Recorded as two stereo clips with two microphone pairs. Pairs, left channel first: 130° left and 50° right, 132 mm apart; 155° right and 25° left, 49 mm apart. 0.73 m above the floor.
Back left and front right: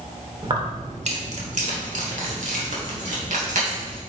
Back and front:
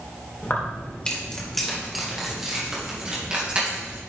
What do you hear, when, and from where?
0.4 s keys jangling: 105° right, 1.5 m; by 4.0 s 40° right, 3.5 m